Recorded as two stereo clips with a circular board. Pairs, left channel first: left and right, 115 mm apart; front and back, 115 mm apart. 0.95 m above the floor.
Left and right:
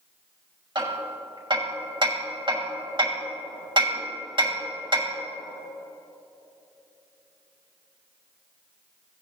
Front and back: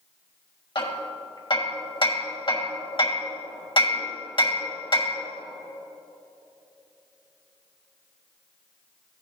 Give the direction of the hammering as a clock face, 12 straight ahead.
1 o'clock.